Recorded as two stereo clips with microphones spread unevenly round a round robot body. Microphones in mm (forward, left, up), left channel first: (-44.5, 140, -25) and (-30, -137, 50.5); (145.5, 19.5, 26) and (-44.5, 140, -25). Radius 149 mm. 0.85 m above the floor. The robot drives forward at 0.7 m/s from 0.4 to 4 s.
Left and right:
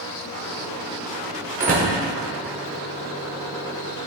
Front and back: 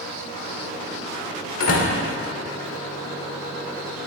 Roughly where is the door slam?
Ahead.